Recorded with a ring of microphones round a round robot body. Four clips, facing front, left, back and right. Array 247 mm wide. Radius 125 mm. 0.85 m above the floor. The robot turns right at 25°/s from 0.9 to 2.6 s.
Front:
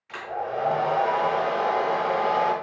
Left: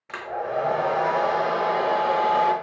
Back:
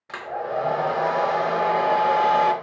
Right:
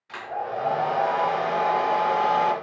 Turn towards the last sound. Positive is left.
turn(degrees=-175)